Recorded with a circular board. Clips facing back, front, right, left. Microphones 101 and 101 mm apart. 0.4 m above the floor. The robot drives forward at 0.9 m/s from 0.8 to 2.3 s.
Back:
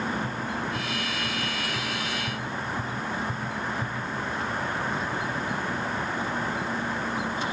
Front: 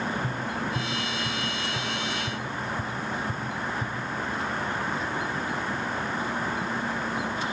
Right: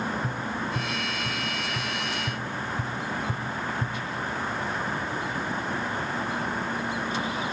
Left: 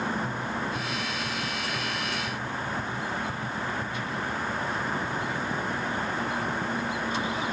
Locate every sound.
0.2 s tapping: 50° right, 2.5 m; by 4.0 s 80° right, 1.9 m